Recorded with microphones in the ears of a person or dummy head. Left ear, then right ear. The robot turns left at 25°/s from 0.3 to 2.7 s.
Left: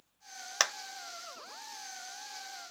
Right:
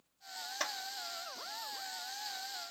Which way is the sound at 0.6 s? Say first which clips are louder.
Left 8 dB; 55° left (ahead or behind).